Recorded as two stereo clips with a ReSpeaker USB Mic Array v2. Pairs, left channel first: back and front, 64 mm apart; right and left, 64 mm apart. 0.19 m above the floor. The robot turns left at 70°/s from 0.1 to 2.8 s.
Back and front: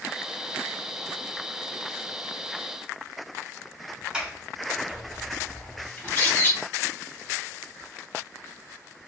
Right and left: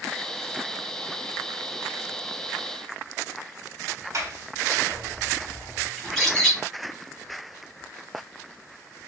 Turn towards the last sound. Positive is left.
turn(degrees=-170)